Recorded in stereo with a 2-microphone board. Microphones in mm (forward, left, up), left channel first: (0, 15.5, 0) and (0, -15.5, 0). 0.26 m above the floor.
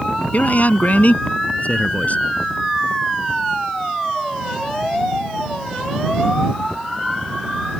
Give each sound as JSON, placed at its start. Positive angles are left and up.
{"t": 0.3, "sound": "a man speaking", "side_deg": 60}